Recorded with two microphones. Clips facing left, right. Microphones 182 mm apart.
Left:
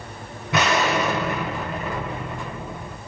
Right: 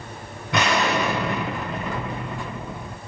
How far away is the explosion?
About 1.1 m.